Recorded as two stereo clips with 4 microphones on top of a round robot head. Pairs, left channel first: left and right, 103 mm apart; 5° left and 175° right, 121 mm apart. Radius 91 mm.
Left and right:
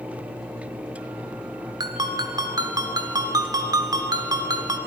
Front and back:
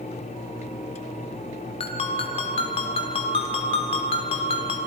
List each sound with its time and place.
1.8 s a ringtone: 40° right, 1.4 m